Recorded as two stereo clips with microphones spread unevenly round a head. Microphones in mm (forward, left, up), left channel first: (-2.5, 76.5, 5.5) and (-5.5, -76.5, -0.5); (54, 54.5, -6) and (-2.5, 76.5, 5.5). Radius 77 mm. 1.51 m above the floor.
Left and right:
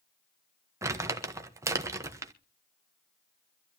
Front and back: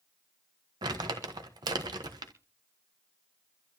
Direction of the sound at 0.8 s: 160° right.